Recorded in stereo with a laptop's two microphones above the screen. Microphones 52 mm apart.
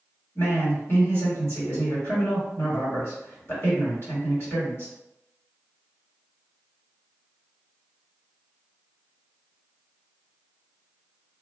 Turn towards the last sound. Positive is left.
turn(degrees=50)  # may be behind; listen again after turning